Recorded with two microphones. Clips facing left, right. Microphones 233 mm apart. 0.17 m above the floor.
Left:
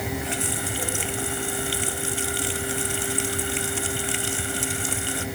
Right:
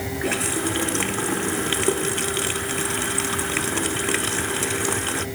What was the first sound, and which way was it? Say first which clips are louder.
A running tap: right 6 dB; 85° right.